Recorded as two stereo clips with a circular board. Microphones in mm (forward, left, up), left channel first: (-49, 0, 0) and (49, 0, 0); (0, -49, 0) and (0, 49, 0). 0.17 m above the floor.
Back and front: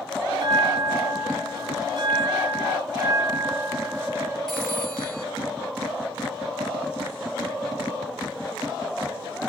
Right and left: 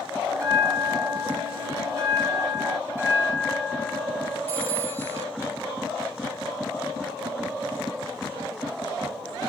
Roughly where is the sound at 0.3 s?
Ahead left.